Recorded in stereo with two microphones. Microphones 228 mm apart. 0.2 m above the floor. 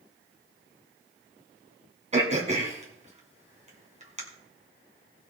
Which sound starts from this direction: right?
Throat clearing, at 2.1 s.